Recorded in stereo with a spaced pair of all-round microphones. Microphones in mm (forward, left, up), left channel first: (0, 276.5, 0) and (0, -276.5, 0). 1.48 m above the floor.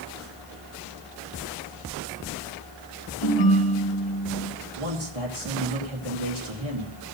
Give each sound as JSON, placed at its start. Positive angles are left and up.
{"t": 3.2, "sound": "a ringtone", "side_deg": 55, "distance_m": 3.5}
{"t": 4.8, "sound": "a man speaking", "side_deg": -85, "distance_m": 2.5}